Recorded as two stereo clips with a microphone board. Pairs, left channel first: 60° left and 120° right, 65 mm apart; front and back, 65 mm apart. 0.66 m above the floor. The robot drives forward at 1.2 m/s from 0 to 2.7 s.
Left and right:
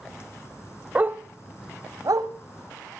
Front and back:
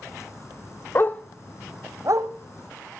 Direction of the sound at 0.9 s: 50° right.